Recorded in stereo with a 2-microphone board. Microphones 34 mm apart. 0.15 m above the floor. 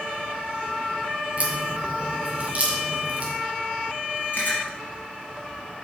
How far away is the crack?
About 2.5 m.